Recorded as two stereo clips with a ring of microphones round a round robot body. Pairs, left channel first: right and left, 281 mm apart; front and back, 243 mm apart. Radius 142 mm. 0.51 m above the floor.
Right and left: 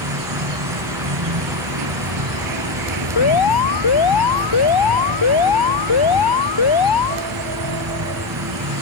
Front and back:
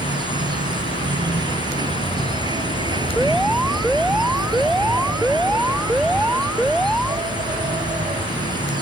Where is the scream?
I don't hear a scream.